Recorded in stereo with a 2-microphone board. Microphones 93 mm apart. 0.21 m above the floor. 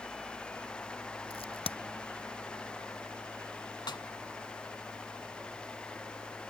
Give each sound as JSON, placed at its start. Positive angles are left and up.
{"t": 1.3, "sound": "a crack", "side_deg": 85}
{"t": 3.9, "sound": "a snare drum", "side_deg": 60}